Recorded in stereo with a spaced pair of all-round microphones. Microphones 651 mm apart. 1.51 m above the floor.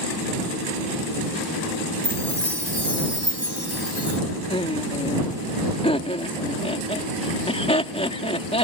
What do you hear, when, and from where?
2.0 s a chime: 60° right (ahead or behind)
4.5 s laughter: 10° left (ahead or behind)